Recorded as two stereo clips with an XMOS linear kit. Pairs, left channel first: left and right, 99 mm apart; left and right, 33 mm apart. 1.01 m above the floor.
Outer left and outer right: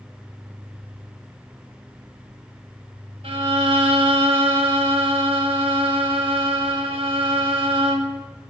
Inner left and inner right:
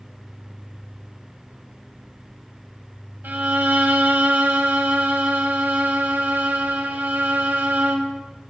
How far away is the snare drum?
I don't hear a snare drum.